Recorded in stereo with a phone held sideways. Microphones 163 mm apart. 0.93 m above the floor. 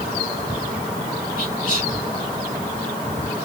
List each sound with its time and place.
1.4 s whispering: 70° right (ahead or behind), 2 m